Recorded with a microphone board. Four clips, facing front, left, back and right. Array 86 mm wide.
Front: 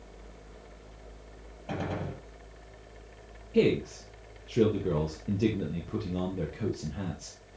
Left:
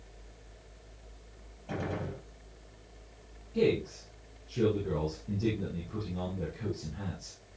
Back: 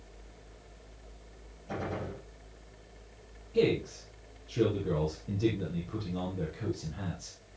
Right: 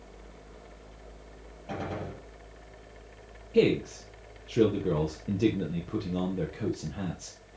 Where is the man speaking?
55° right, 3.5 m.